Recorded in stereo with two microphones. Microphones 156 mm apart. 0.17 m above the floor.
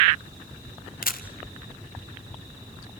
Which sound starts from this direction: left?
A camera shutter, at 1.0 s.